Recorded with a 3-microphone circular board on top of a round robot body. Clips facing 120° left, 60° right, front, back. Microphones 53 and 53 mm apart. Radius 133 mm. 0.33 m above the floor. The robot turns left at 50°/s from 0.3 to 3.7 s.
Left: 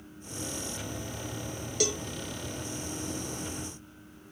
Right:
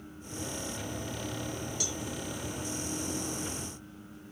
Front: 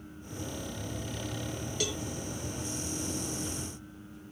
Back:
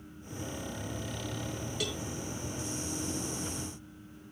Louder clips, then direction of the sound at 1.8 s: Left 8 dB, front 2 dB; 90° left.